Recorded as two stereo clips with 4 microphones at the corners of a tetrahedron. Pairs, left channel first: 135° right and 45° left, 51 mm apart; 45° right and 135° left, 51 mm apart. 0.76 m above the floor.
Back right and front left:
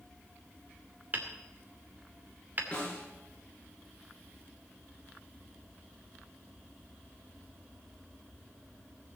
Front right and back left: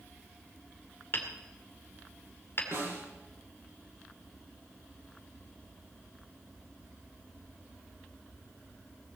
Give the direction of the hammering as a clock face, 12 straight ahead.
12 o'clock.